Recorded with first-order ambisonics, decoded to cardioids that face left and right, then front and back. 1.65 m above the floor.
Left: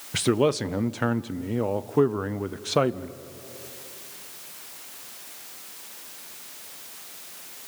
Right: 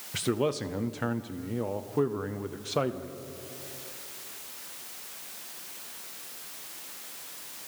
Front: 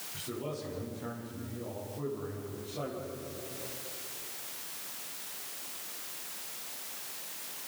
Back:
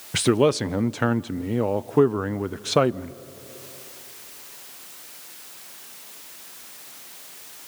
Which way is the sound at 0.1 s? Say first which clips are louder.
Left 6 dB, back 20 dB; 160° left.